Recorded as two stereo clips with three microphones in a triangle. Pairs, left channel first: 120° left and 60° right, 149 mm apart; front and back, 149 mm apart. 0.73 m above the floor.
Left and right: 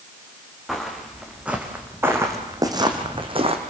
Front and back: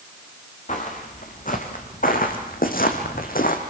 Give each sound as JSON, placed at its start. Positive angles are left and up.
{"t": 0.7, "sound": "footsteps", "azimuth_deg": 30, "distance_m": 3.5}